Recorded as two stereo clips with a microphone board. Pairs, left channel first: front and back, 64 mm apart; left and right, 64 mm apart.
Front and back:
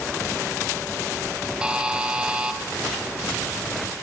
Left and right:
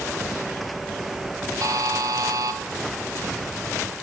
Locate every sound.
1.6 s a buzzer: 105° right, 1.0 m